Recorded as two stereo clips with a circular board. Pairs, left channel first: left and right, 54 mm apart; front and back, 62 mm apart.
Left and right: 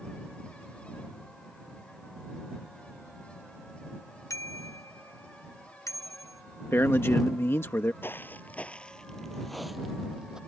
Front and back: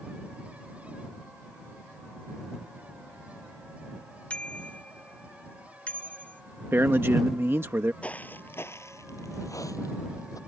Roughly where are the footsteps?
Ahead left.